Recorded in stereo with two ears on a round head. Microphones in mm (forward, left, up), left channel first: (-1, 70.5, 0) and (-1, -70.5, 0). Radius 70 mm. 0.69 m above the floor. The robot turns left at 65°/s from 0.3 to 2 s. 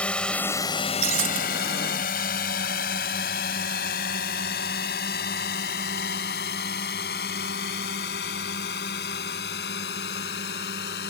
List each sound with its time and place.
0.0 s a drone: 10° left (ahead or behind); by 11.1 s 80° left
1.0 s breaking glass: 75° right (ahead or behind); by 1.4 s 50° right (ahead or behind)